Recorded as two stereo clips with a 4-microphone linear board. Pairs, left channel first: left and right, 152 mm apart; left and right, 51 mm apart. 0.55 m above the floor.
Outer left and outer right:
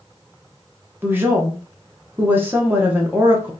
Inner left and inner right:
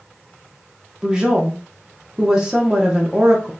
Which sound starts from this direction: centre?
A woman speaking, at 1.0 s.